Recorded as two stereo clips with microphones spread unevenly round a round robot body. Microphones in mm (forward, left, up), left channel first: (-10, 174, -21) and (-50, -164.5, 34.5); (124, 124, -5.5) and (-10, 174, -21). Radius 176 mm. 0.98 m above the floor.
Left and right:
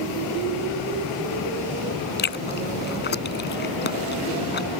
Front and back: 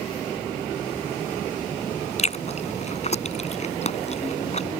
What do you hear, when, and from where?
2.2 s chewing: 20° left